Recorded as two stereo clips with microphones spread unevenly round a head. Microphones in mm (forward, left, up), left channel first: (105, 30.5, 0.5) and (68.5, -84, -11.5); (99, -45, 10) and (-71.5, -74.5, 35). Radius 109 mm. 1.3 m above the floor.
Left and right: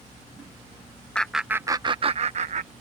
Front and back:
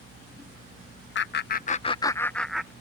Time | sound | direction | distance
1.1 | laughter | 10° right | ?